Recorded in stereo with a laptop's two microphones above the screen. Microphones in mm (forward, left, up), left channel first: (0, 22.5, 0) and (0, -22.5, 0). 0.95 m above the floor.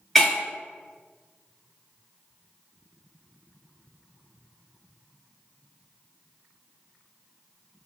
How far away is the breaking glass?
About 1.4 m.